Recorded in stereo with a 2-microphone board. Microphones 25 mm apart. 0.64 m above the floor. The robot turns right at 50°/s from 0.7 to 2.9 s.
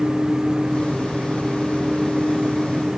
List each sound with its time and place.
Only background noise.